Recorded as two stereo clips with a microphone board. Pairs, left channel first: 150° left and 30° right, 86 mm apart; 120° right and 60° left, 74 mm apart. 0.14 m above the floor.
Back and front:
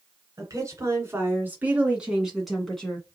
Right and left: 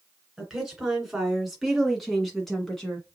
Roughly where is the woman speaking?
Ahead.